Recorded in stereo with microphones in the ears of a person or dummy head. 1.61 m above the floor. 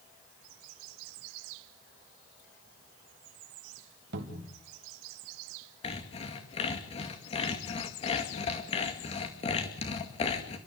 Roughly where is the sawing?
Left.